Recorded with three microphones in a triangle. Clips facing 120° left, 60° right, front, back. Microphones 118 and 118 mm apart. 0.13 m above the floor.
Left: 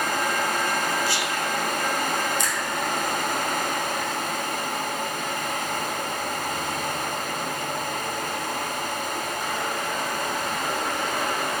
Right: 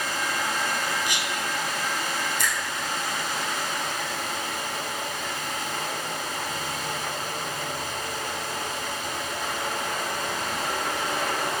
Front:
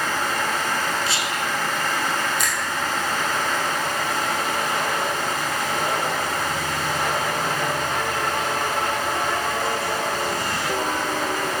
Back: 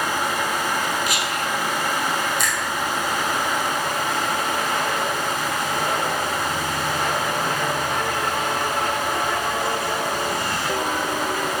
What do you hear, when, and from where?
1.1 s whispering: 5° right, 1.2 m
2.4 s a finger snap: 90° right, 3 m